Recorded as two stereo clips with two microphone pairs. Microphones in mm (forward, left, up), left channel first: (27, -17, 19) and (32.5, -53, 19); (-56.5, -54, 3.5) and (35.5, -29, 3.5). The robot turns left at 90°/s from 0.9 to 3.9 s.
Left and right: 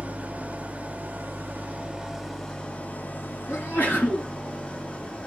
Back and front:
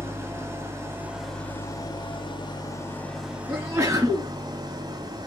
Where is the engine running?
45° right, 1.8 m; by 5.3 s 45° left, 1.8 m.